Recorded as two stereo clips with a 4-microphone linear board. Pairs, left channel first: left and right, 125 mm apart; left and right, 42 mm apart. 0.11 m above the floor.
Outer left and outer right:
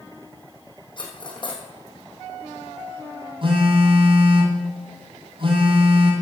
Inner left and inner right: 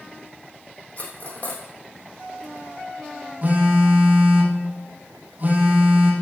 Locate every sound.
1.0 s cutlery clinking: 40° left (ahead or behind), 3.5 m
3.4 s a phone buzzing: 40° right (ahead or behind), 3.5 m